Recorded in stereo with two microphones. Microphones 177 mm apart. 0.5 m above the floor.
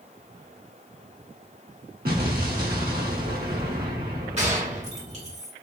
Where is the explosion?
55° right (ahead or behind), 1.0 m.